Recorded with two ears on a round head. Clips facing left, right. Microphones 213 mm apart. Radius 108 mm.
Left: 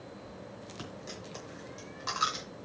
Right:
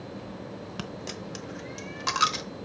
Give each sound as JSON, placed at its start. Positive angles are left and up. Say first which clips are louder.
{"t": 0.8, "sound": "a dropped coin", "louder": "right 6 dB", "side_deg": -70, "distance_m": 1.0}